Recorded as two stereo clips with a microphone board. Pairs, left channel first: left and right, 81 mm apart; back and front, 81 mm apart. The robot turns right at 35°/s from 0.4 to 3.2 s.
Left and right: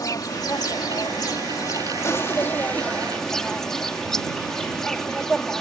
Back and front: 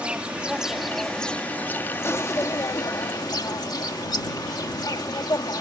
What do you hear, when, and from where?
0.0 s an insect: 75° left; by 5.6 s 170° left